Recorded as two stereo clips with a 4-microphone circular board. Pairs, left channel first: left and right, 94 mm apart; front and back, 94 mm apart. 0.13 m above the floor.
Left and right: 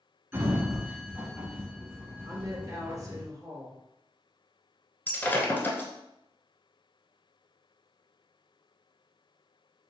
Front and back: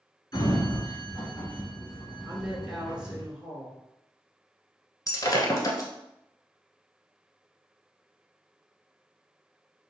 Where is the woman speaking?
105° right, 1.4 m.